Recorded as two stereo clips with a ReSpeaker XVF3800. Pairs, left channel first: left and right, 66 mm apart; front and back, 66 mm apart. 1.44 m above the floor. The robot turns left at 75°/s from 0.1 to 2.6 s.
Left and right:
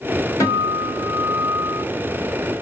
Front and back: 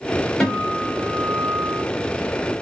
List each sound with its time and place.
0.4 s a guitar: 85° left, 1.5 m; by 1.8 s 25° right, 1.5 m